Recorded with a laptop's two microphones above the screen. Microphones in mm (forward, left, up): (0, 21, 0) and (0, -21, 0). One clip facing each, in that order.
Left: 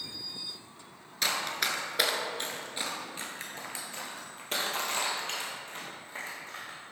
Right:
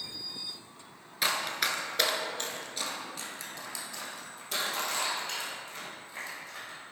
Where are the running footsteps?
10° right (ahead or behind), 1.1 m; by 6.8 s 45° left (ahead or behind), 3 m.